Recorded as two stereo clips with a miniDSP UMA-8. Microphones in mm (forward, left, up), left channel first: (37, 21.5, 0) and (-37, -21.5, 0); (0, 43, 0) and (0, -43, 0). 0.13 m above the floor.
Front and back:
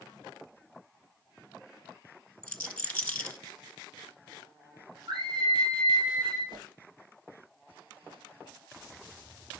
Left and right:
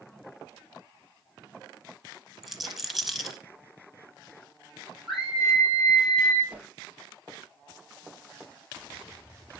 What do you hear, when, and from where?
2.4 s a rattle: 10° right, 1.4 m
5.1 s a scream: 175° right, 4 m
6.5 s a whoosh: 155° right, 1.9 m